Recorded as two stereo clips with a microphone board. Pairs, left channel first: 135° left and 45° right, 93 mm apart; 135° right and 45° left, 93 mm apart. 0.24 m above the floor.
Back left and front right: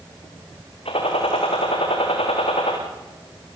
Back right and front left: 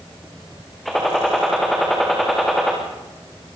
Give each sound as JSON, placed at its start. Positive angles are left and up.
{"t": 0.8, "sound": "a gunshot", "azimuth_deg": 135, "distance_m": 7.0}